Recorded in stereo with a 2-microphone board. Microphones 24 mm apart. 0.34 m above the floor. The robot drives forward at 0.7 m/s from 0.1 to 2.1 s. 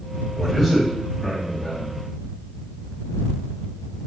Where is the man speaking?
5° right (ahead or behind), 1.5 m.